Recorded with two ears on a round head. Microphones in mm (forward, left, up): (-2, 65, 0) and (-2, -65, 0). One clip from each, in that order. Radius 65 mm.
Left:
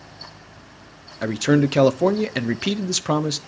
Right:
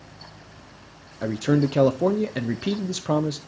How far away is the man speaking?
About 0.6 m.